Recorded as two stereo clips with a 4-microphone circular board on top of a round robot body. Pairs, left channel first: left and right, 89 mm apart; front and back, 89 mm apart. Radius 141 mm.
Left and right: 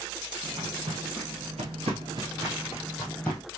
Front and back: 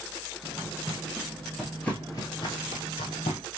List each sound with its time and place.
0.4 s footsteps: 105° right, 1.6 m; by 3.4 s 15° left, 1.1 m